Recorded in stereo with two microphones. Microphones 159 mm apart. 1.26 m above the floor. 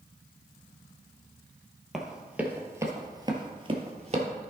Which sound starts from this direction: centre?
Running footsteps, at 1.9 s.